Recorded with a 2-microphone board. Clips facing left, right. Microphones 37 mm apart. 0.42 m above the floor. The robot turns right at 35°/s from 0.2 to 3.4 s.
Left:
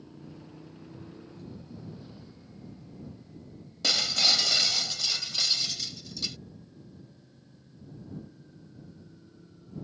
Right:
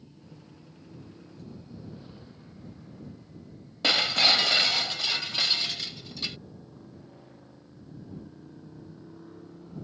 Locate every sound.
0.0 s a motorcycle: 130° left; by 9.8 s 120° right
3.8 s breaking glass: 30° right (ahead or behind)